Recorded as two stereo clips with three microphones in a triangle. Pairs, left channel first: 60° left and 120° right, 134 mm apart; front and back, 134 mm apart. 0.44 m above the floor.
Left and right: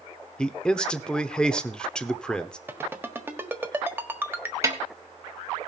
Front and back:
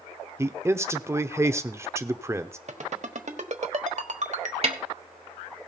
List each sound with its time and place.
0.4 s a man speaking: 135° left, 0.8 m
2.7 s a ringtone: 170° left, 1.3 m
4.6 s a snare drum: straight behind, 1.5 m